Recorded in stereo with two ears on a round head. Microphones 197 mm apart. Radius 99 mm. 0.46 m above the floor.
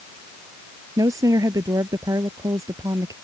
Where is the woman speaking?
15° right (ahead or behind).